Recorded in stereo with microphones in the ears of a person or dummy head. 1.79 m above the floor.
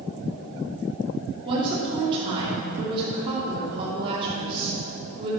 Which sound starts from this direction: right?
A woman speaking, at 1.4 s.